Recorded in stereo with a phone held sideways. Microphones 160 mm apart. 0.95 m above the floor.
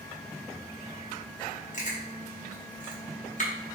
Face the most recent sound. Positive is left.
turn(degrees=50)  # may be behind; listen again after turning